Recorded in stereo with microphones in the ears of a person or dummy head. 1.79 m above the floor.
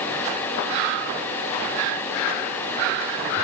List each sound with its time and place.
Only background noise.